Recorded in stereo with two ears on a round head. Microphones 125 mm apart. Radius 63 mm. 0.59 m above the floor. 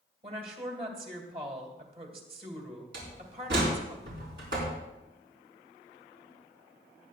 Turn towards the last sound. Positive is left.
turn(degrees=-75)  # may be behind; listen again after turning